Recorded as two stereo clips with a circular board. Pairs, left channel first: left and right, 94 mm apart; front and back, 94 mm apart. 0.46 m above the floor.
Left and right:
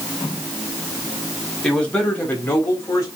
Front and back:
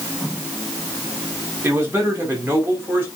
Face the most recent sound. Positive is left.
turn(degrees=130)